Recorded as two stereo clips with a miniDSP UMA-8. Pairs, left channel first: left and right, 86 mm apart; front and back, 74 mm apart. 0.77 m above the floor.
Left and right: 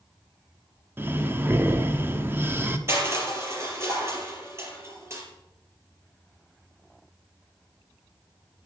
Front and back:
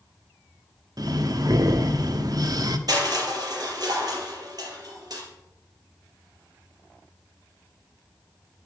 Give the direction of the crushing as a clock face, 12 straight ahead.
5 o'clock.